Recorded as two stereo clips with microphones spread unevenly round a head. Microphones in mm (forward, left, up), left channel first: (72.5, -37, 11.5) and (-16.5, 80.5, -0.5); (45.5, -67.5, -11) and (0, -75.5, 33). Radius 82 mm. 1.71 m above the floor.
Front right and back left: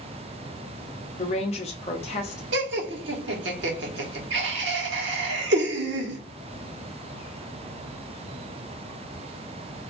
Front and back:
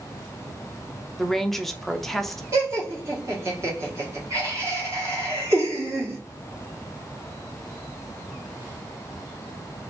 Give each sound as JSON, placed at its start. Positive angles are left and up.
{"t": 1.2, "sound": "a woman speaking", "azimuth_deg": -100, "distance_m": 0.7}
{"t": 2.5, "sound": "laughter", "azimuth_deg": 155, "distance_m": 1.1}